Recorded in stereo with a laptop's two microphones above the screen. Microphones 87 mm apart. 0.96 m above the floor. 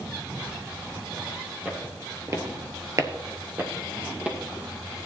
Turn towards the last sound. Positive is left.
turn(degrees=-15)  # may be behind; listen again after turning